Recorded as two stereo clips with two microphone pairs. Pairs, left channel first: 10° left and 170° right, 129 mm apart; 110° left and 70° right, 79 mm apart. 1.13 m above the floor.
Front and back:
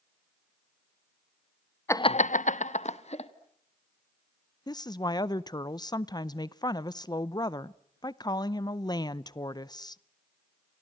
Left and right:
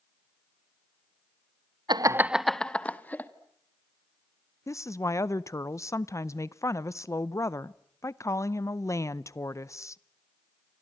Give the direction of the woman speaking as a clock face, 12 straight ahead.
10 o'clock.